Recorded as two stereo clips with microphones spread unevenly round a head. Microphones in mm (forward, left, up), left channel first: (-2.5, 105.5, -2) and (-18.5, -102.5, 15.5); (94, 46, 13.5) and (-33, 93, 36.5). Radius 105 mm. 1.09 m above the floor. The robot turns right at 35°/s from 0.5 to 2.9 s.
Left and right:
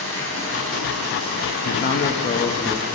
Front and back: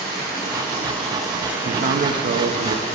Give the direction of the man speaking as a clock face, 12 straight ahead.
8 o'clock.